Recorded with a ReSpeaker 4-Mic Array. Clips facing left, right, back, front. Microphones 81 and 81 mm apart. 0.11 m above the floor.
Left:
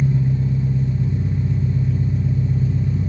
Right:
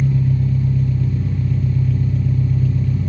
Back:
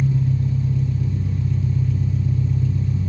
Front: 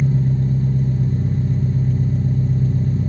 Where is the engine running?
30° left, 2 m.